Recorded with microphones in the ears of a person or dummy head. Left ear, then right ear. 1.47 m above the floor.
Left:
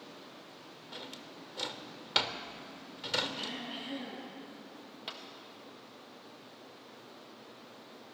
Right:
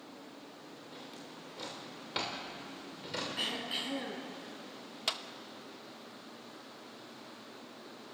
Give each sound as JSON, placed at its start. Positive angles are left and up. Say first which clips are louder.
{"t": 0.9, "sound": "a drawer", "louder": "left 5 dB", "side_deg": 35, "distance_m": 2.0}
{"t": 3.4, "sound": "throat clearing", "louder": "right 4 dB", "side_deg": -40, "distance_m": 5.0}
{"t": 5.1, "sound": "a clap", "louder": "right 9 dB", "side_deg": -35, "distance_m": 1.3}